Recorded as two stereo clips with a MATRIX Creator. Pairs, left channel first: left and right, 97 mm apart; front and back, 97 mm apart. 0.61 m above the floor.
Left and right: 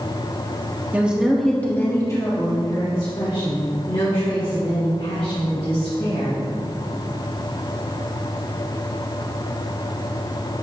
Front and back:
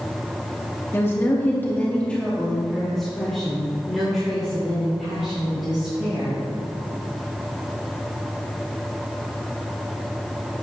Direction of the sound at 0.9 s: 35° right.